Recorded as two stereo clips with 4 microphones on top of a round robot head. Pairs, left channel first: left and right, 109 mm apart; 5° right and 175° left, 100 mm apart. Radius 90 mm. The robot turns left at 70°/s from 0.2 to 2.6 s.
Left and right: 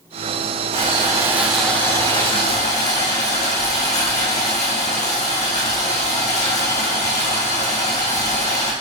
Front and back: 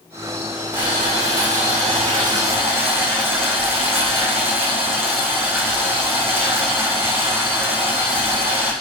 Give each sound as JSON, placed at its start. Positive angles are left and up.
{"t": 0.7, "sound": "boiling", "azimuth_deg": -120, "distance_m": 4.0}